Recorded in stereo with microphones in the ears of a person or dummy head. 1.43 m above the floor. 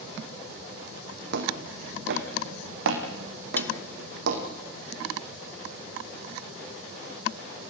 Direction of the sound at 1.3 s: 60° right (ahead or behind).